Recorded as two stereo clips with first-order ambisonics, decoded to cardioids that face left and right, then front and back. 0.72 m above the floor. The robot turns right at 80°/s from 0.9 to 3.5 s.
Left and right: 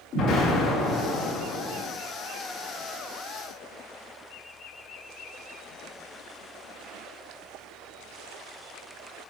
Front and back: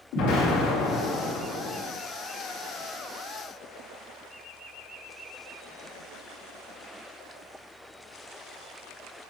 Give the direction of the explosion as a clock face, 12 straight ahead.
11 o'clock.